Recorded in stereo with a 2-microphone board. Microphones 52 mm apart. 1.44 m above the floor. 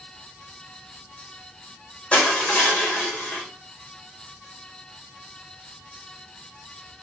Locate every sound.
2.1 s crushing: 25° left (ahead or behind), 4.5 m